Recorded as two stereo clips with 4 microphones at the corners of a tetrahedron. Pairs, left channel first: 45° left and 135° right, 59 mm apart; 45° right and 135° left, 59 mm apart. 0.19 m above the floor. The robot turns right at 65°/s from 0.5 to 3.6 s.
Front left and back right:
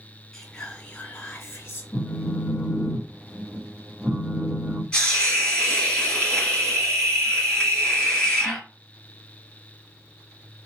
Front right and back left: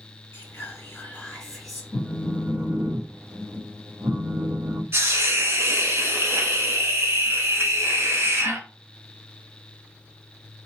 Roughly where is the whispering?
Ahead right.